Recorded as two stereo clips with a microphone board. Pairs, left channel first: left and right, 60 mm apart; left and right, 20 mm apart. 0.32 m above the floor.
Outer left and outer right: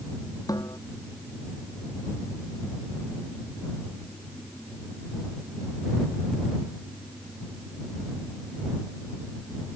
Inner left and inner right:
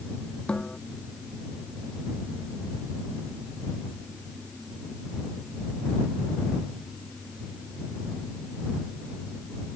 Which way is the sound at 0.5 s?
85° left.